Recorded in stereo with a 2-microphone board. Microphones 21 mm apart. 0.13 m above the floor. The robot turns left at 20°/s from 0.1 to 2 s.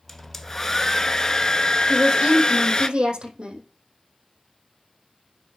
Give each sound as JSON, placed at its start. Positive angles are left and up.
{"t": 0.1, "sound": "a hair dryer", "azimuth_deg": 170, "distance_m": 0.7}
{"t": 1.9, "sound": "a woman speaking", "side_deg": -65, "distance_m": 4.5}